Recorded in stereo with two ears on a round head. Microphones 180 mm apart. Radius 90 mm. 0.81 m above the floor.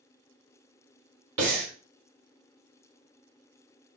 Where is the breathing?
75° right (ahead or behind), 1.1 m.